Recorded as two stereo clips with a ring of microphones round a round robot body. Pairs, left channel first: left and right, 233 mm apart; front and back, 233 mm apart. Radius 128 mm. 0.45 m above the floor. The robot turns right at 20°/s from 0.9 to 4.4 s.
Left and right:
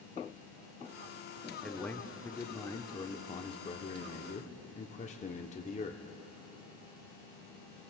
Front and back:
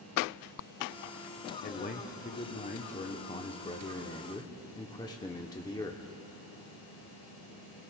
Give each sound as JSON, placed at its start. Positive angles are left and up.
{"t": 1.6, "sound": "a man speaking", "azimuth_deg": 5, "distance_m": 0.9}